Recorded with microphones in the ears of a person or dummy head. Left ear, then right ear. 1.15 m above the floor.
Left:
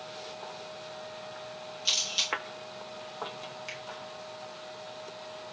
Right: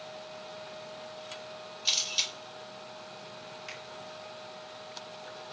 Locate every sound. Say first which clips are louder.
1.9 s a camera shutter: left 1 dB; 5° right (ahead or behind), 1.4 m
3.7 s a finger snap: left 2 dB; 5° left (ahead or behind), 1.8 m